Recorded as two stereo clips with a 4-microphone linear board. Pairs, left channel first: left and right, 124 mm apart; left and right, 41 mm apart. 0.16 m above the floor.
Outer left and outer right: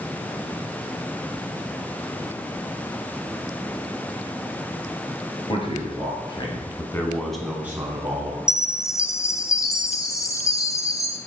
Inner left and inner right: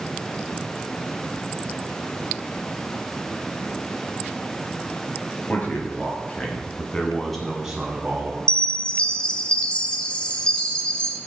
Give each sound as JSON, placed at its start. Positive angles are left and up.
{"t": 5.5, "sound": "a man speaking", "side_deg": 45, "distance_m": 3.0}
{"t": 8.5, "sound": "a chime", "side_deg": 25, "distance_m": 0.7}